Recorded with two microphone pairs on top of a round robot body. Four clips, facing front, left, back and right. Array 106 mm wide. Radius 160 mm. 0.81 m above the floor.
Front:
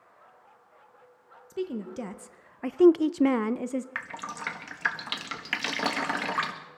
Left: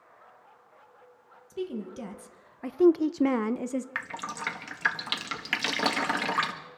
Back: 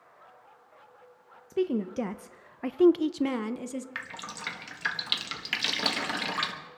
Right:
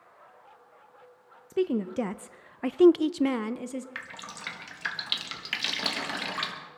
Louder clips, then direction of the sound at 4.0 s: Left 6 dB, front 4 dB; 55° left.